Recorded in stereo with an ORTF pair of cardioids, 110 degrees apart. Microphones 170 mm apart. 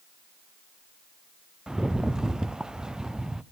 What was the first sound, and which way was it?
A rattle, 5° right.